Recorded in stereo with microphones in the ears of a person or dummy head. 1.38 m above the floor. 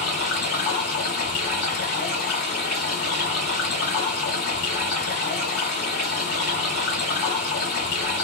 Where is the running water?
40° left (ahead or behind), 1.5 m.